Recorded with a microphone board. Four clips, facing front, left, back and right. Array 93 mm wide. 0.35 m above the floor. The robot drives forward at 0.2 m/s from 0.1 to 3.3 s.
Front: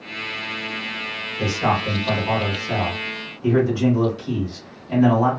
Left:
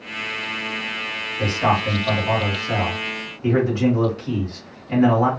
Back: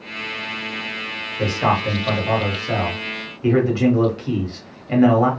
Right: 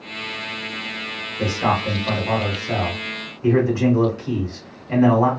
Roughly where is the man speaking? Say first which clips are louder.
Left 1 dB, back 2 dB; behind.